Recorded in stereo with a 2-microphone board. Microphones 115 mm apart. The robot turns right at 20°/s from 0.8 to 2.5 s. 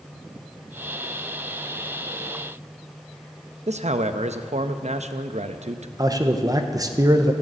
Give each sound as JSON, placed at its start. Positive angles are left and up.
{"t": 3.7, "sound": "a man speaking", "side_deg": -75, "distance_m": 0.7}
{"t": 6.0, "sound": "a man speaking", "side_deg": -30, "distance_m": 0.9}